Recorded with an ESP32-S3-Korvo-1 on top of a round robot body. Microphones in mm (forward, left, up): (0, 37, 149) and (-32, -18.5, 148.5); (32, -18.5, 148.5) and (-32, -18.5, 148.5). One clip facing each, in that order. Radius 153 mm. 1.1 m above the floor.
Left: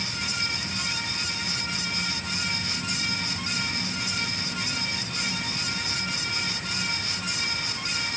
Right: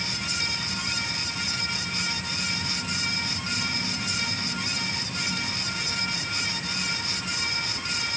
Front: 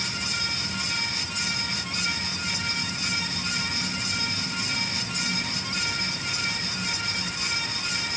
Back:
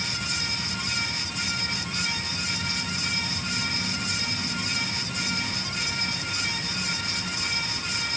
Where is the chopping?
No chopping in this recording.